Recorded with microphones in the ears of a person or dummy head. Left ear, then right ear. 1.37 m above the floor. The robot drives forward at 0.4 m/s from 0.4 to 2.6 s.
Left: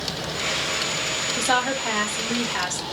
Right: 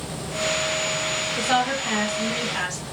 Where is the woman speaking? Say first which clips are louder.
Even; 55° left (ahead or behind), 0.8 m; by 2.8 s 35° left (ahead or behind), 1.2 m.